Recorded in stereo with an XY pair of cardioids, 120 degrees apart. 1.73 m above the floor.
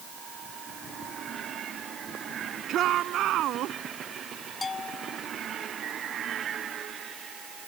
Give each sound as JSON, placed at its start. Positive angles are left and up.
{"t": 2.7, "sound": "a shout", "azimuth_deg": -60}
{"t": 4.6, "sound": "a bell", "azimuth_deg": 30}